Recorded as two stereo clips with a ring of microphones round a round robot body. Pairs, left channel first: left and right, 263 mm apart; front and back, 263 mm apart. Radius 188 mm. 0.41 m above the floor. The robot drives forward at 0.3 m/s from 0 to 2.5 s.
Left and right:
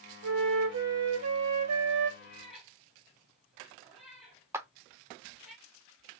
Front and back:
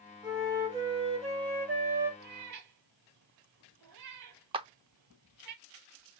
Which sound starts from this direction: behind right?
A clap, at 4.5 s.